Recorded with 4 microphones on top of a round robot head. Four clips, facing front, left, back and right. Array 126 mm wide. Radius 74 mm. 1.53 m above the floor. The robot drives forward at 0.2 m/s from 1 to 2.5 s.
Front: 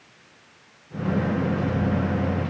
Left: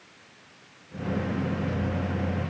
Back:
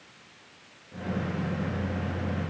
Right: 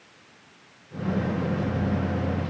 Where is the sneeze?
I don't hear a sneeze.